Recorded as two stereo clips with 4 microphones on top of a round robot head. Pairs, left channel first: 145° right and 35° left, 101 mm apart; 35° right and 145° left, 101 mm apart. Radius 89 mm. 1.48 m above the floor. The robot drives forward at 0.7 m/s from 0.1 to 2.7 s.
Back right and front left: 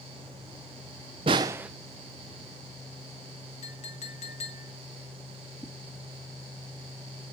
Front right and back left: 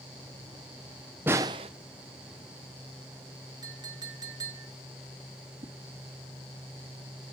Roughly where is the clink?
Behind.